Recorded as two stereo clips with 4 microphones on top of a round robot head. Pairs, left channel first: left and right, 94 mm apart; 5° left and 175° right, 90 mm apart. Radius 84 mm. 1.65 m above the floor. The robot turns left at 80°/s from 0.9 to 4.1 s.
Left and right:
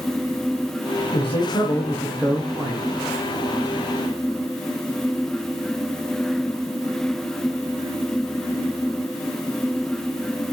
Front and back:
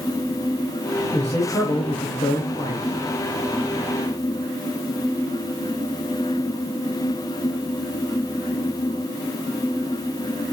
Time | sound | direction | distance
1.1 | a man speaking | 75° left | 0.9 m